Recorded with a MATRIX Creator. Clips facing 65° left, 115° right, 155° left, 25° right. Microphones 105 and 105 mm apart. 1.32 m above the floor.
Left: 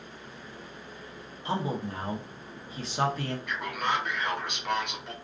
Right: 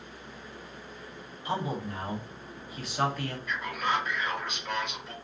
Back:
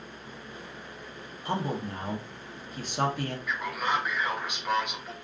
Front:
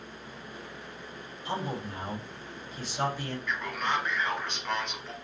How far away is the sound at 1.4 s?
About 0.8 m.